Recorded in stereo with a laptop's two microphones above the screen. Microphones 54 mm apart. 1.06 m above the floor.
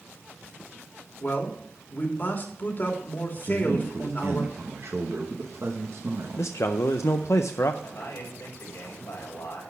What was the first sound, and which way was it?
A man speaking, 40° left (ahead or behind).